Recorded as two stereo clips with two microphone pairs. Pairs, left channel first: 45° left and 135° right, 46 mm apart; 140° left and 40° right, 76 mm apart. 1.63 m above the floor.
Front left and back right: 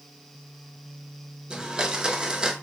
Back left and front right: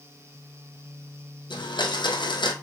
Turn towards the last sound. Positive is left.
turn(degrees=150)